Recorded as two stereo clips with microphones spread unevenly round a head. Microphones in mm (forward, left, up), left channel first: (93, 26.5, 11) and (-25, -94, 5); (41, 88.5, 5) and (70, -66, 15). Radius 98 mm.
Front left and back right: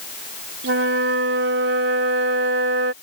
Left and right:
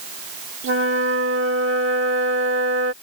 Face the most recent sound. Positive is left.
turn(degrees=-115)